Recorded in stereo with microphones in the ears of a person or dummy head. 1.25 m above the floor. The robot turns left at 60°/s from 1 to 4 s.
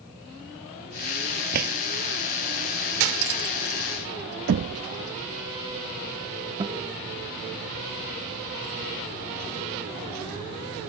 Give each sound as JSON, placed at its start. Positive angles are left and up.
{"t": 1.5, "sound": "a drawer", "side_deg": -45}
{"t": 3.0, "sound": "cutlery clinking", "side_deg": -65}
{"t": 4.5, "sound": "knocking", "side_deg": -50}
{"t": 6.6, "sound": "a guitar", "side_deg": -20}